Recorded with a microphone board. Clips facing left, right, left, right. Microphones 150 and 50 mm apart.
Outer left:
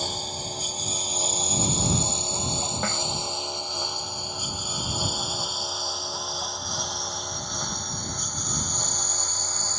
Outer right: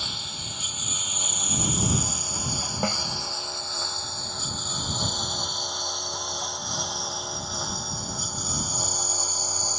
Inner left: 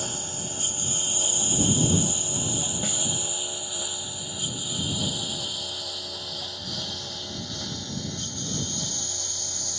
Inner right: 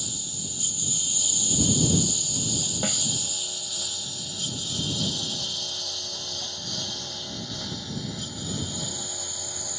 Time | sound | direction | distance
0.0 | a lawn mower | 40° left (ahead or behind) | ?
2.8 | a snare drum | 20° right (ahead or behind) | ?